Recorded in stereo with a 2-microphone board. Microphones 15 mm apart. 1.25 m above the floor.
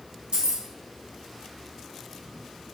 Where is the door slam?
No door slam in this recording.